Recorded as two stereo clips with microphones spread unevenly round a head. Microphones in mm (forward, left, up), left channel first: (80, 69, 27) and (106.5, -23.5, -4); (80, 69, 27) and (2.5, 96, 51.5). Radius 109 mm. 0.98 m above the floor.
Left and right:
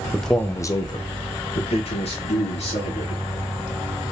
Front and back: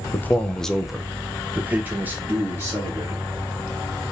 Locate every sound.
0.1 s a man speaking: 10° right, 0.6 m; by 3.2 s 95° left, 1.7 m